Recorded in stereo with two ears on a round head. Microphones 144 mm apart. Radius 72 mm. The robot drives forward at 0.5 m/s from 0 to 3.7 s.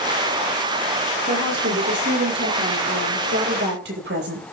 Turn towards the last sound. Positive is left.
turn(degrees=-75)  # may be behind; listen again after turning